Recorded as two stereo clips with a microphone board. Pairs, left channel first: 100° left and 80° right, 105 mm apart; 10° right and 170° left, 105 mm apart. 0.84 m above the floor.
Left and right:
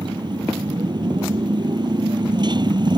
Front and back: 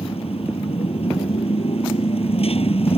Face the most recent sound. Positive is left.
turn(degrees=-35)